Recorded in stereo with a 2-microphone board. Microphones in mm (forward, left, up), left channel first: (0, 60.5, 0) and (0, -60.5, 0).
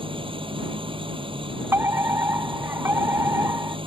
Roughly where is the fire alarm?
Right.